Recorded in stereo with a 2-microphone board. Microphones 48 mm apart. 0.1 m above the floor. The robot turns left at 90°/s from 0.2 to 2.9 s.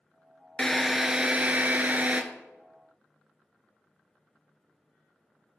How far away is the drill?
About 0.6 m.